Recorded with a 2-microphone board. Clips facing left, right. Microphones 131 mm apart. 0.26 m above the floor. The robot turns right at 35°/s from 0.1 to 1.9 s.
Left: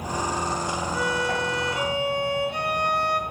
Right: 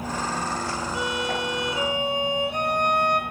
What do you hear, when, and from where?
0.9 s a violin: 25° right (ahead or behind), 0.8 m; by 3.2 s 20° right (ahead or behind), 0.8 m